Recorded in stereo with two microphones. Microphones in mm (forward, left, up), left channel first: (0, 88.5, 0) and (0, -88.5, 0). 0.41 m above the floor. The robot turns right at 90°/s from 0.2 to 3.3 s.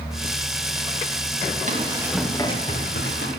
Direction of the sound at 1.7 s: 45° right (ahead or behind).